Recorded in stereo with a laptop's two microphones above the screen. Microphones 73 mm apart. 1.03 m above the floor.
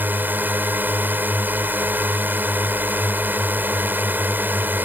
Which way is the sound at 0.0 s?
25° right (ahead or behind).